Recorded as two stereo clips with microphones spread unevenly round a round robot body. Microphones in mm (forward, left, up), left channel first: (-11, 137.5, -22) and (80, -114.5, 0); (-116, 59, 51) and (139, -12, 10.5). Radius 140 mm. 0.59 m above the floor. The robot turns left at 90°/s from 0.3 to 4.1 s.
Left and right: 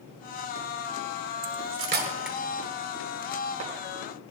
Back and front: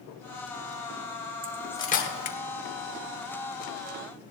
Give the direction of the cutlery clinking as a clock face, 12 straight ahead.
3 o'clock.